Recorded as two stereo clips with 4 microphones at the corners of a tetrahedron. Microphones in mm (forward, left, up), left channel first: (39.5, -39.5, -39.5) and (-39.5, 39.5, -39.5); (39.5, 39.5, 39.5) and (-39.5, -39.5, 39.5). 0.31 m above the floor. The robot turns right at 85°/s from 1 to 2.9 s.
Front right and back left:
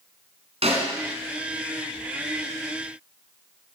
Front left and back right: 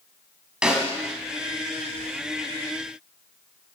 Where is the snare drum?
145° left, 2.5 m.